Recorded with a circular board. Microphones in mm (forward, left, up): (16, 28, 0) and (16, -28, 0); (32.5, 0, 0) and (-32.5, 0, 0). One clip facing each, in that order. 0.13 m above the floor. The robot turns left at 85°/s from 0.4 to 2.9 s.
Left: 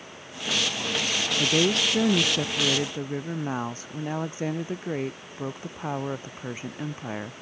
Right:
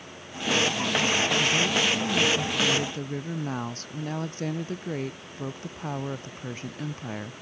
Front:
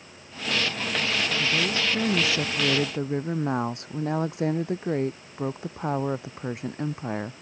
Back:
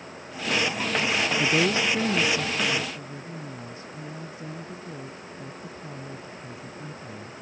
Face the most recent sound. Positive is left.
turn(degrees=15)